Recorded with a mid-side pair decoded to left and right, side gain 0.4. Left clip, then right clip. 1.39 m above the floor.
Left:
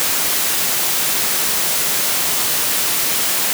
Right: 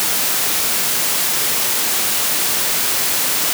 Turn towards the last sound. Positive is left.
No sound to turn to.